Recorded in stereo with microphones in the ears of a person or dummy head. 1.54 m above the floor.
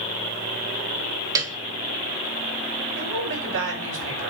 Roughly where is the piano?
Right.